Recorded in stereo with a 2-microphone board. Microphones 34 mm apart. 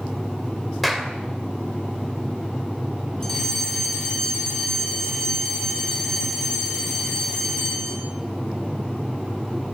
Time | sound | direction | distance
0.8 | a clap | centre (ahead or behind) | 3 m
3.2 | a fire alarm | 15° left (ahead or behind) | 5 m